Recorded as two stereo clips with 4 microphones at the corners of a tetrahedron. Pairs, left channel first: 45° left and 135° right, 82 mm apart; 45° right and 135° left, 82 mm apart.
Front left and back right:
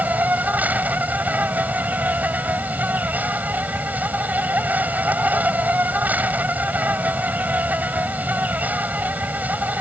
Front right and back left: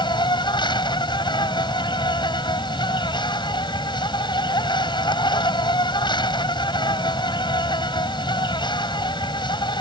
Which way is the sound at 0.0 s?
65° right.